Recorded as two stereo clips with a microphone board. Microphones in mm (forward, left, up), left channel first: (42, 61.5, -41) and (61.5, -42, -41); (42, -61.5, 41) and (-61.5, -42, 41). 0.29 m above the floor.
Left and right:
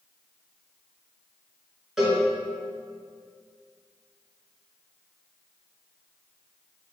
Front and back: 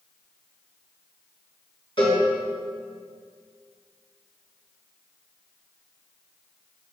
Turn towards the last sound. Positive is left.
turn(degrees=5)